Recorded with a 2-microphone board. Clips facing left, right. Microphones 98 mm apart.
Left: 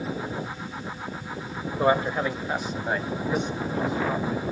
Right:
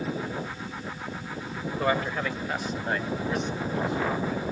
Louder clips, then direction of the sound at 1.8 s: Left 5 dB; 20° left (ahead or behind).